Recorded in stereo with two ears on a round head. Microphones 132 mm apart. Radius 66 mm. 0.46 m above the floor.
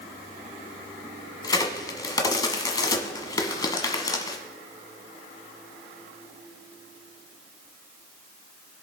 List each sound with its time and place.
1.4 s a crack: 25° left (ahead or behind), 1.4 m